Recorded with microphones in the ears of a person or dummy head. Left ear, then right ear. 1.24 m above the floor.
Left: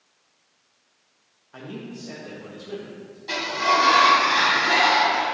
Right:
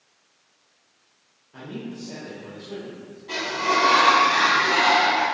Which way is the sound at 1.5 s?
55° left (ahead or behind).